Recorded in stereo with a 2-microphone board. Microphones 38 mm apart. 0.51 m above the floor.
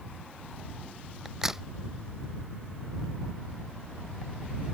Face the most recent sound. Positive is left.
turn(degrees=-10)  # may be behind; listen again after turning